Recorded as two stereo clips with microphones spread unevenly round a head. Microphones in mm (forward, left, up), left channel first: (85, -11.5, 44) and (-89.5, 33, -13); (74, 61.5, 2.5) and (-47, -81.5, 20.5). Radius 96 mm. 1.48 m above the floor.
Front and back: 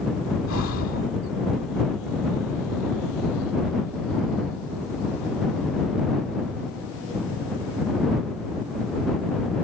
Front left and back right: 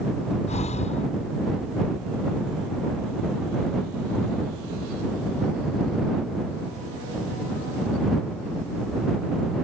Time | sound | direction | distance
0.5 | breathing | 5° right | ?